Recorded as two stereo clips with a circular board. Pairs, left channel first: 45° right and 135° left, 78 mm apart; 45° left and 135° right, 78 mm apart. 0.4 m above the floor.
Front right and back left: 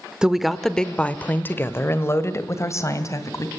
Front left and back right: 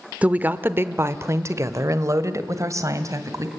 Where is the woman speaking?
165° right, 0.8 m; by 3.5 s 90° right, 2 m.